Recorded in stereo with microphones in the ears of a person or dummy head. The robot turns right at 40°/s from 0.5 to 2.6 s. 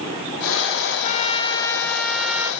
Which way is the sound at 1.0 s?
135° left.